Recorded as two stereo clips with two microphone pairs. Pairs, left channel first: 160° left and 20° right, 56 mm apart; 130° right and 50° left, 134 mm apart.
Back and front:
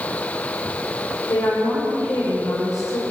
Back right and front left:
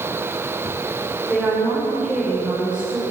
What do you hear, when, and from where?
1.3 s a woman speaking: 135° left, 6 m; by 3.0 s 130° left, 7 m